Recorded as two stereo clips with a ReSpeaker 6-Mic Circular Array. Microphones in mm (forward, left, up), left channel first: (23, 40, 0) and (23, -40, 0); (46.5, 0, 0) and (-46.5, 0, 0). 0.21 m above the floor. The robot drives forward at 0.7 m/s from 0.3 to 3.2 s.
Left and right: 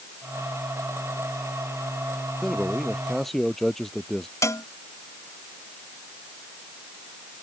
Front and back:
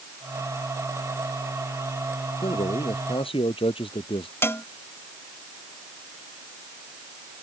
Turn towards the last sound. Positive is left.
turn(degrees=55)